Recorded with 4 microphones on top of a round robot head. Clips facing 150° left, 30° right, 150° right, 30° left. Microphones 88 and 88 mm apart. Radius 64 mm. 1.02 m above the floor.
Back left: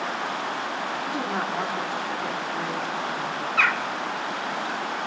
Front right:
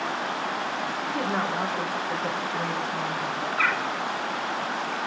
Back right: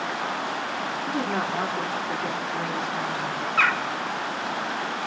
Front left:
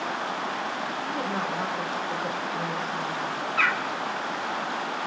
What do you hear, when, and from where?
1.1 s a woman speaking: 140° right, 3 m
3.6 s a bird: 160° left, 1.1 m